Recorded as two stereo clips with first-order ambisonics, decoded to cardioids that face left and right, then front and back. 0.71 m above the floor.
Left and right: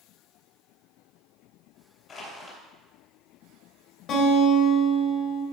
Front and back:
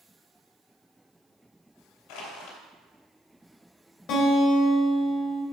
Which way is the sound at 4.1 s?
40° left.